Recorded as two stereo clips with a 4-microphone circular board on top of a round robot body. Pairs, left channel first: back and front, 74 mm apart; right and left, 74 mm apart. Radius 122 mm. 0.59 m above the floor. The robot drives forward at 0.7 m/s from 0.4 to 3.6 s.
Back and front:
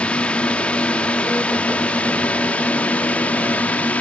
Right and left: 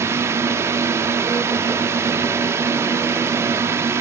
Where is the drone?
115° left.